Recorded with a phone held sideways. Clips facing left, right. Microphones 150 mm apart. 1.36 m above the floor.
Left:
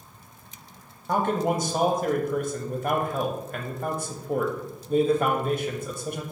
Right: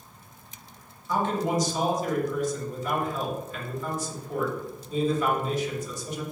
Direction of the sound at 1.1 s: 55° left (ahead or behind).